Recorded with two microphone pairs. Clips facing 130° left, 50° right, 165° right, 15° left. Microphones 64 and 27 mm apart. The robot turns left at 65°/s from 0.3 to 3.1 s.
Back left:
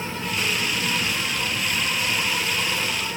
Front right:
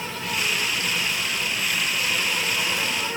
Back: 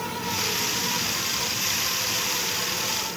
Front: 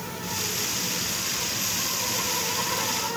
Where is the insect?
Straight behind, 2.5 m; by 3.2 s 5° right, 2.5 m.